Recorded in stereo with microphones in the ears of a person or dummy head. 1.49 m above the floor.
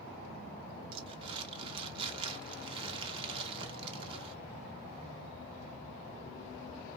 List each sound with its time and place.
0.9 s crumpling: 30° right (ahead or behind), 0.5 m